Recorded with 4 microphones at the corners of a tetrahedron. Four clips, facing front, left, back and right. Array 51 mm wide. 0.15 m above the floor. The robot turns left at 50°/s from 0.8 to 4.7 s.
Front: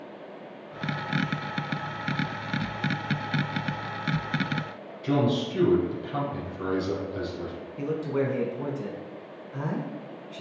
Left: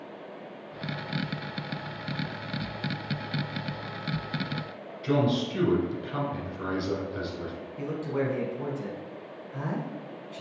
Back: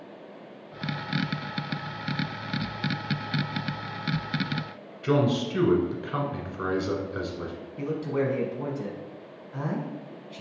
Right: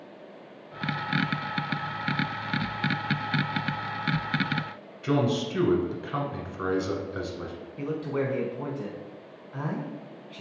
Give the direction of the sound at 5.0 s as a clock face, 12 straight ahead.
5 o'clock.